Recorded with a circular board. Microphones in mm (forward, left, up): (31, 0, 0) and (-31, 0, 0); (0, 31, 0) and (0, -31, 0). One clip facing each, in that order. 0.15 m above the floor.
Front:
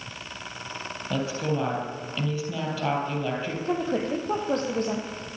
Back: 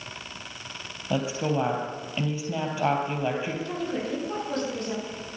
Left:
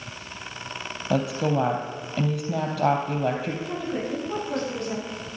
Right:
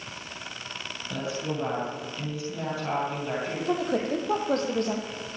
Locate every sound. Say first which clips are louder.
1.1 s a woman speaking: back 2 dB, left 8 dB; 110° left, 3.5 m
3.6 s a woman speaking: front 4 dB, right 3 dB; 50° right, 4.5 m